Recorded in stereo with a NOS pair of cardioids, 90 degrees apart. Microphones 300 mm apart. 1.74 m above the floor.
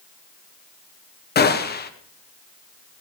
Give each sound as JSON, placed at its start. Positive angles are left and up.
{"t": 1.4, "sound": "a gunshot", "azimuth_deg": 35, "distance_m": 1.1}